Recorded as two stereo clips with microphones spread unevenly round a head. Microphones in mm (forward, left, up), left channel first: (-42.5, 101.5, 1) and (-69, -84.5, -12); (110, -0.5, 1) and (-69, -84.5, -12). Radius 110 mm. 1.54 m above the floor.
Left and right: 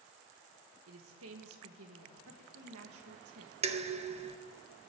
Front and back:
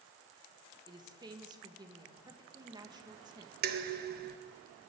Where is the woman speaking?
85° right, 1.6 m.